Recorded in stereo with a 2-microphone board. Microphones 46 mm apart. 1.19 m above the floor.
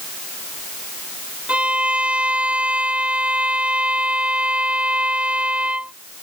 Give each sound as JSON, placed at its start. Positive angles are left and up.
{"t": 1.5, "sound": "a violin", "side_deg": -30}